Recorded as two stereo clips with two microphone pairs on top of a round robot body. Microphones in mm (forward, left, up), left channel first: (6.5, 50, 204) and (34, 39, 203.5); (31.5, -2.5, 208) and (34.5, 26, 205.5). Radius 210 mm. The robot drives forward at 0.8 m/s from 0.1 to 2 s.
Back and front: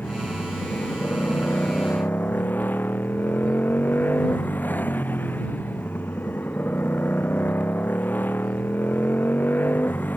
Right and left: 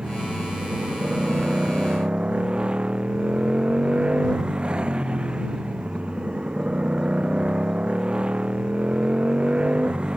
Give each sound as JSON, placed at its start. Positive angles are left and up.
{"t": 0.0, "sound": "a motorcycle", "azimuth_deg": 140}